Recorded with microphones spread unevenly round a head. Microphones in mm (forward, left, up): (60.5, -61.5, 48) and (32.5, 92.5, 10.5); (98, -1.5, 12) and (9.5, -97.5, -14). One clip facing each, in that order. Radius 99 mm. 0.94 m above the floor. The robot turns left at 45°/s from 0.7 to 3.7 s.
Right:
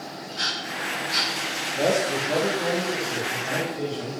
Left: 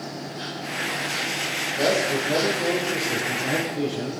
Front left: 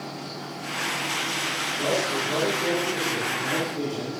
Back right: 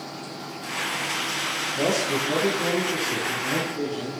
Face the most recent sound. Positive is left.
turn(degrees=125)